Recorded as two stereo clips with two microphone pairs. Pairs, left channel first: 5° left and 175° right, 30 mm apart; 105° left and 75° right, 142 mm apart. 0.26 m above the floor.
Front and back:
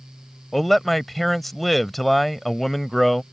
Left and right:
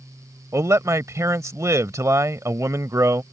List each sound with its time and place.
0.5 s a man speaking: 75° right